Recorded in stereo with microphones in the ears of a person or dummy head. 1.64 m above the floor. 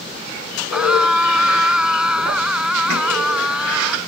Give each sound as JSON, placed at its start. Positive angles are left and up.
{"t": 0.7, "sound": "a scream", "side_deg": 0}